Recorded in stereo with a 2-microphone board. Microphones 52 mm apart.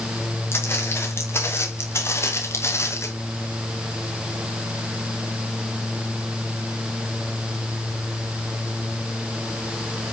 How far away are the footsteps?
About 6 m.